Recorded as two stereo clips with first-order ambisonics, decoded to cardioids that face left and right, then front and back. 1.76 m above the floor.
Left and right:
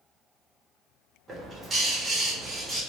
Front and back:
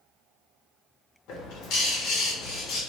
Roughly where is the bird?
Ahead.